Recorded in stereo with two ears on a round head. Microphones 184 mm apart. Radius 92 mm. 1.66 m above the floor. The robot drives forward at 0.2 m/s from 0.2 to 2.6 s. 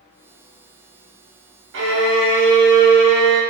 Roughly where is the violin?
Right.